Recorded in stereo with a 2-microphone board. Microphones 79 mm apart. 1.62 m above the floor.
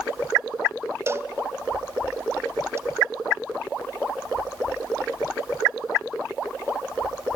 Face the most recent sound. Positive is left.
turn(degrees=-30)  # may be behind; listen again after turning